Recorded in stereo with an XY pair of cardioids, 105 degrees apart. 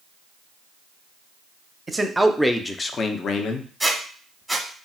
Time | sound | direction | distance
1.9 | a man speaking | 20° right | 0.7 m
3.8 | a squeak | 10° right | 0.9 m